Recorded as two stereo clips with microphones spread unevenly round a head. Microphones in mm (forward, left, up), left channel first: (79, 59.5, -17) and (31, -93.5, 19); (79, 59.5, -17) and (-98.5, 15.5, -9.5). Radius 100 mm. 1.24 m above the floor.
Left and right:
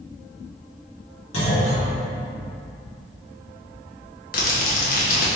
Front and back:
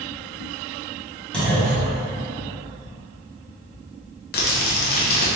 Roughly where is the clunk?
Left.